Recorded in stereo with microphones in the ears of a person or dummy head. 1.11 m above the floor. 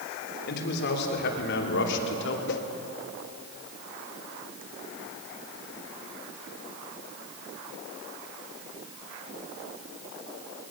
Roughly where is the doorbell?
No doorbell in this recording.